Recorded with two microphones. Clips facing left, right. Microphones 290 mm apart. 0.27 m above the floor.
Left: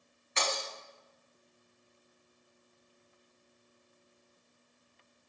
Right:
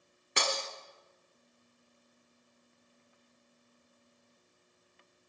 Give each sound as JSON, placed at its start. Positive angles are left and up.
{"t": 0.4, "sound": "breaking glass", "side_deg": -75, "distance_m": 0.7}